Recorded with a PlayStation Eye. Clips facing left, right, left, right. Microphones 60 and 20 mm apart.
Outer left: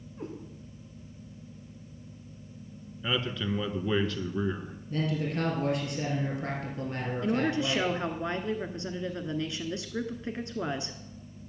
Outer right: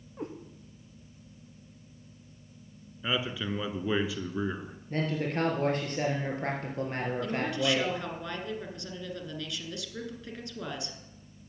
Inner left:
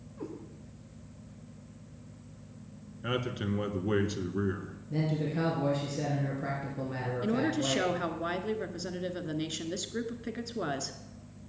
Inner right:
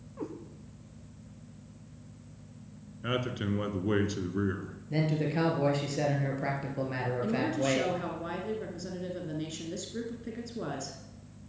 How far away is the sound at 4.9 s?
About 2.5 m.